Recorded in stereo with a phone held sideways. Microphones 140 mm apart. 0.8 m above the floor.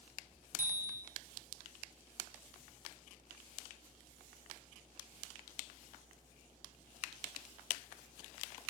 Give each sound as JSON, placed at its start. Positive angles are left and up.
{"t": 0.6, "sound": "a bicycle bell", "side_deg": -65, "distance_m": 3.5}